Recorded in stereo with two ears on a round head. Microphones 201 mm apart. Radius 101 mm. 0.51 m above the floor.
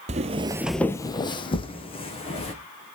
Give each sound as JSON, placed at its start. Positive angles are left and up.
{"t": 0.1, "sound": "footsteps", "side_deg": -30, "distance_m": 0.7}